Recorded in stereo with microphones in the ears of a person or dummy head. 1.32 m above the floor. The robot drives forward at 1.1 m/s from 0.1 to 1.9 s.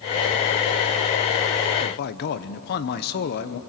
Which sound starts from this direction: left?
A man speaking, at 1.8 s.